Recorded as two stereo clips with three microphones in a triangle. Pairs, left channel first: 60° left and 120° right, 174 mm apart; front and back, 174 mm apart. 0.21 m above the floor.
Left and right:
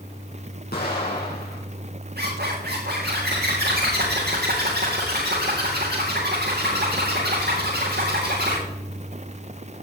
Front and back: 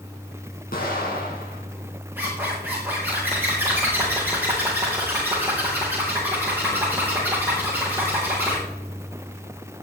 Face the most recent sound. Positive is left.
turn(degrees=-100)